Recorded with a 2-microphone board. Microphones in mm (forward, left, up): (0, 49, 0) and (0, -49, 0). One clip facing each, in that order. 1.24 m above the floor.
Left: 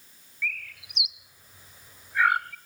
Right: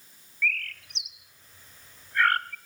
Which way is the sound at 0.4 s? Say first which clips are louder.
Right 4 dB; 10° left (ahead or behind).